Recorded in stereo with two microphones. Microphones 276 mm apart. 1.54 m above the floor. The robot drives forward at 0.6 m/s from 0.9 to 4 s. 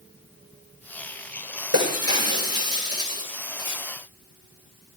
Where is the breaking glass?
60° right (ahead or behind), 10 m; by 3.8 s 55° right (ahead or behind), 10.5 m.